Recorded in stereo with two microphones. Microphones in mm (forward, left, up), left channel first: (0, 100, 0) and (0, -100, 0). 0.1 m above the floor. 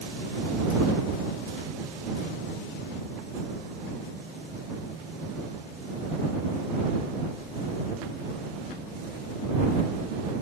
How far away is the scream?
No scream in this recording.